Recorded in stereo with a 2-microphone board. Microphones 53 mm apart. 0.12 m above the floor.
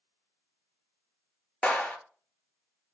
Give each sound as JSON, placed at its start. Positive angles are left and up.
{"t": 1.6, "sound": "a clap", "side_deg": 20, "distance_m": 1.8}